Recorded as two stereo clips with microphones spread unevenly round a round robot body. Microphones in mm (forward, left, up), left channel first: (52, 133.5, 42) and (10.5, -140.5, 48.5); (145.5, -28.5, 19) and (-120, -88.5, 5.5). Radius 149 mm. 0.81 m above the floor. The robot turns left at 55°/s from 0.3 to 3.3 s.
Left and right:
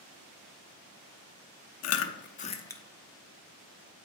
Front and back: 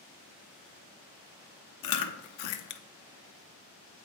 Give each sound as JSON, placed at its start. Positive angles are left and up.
{"t": 1.8, "sound": "chewing", "azimuth_deg": 50, "distance_m": 0.6}